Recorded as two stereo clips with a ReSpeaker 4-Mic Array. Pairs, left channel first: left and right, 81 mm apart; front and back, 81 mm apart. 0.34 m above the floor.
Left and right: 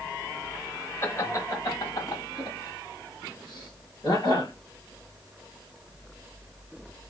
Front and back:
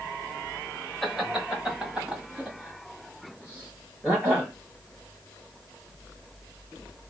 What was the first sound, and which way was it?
Laughter, 85° left.